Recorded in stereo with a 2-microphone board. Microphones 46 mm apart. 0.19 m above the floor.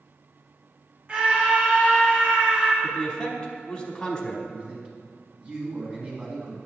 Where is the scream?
30° right (ahead or behind), 1.8 m.